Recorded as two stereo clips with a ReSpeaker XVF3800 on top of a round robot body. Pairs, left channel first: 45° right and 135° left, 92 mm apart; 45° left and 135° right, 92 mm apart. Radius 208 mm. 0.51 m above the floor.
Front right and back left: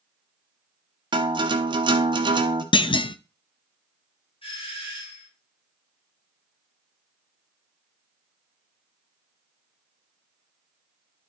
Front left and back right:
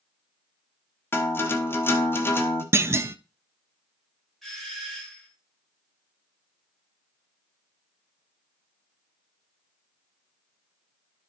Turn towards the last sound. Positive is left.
turn(degrees=-45)